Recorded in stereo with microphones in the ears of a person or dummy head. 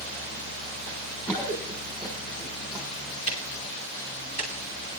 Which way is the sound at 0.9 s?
20° left (ahead or behind).